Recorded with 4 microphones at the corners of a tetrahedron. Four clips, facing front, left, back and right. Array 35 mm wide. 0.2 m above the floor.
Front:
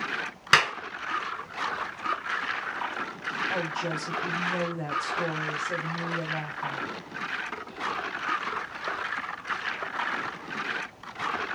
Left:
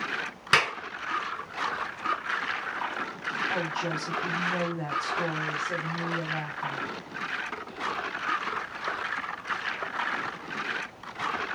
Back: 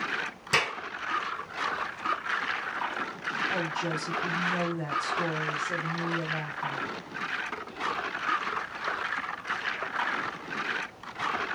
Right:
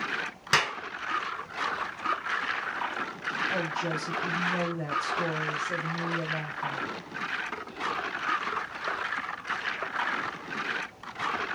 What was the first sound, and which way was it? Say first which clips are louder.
A clap: left 2 dB, front 5 dB; 10° left.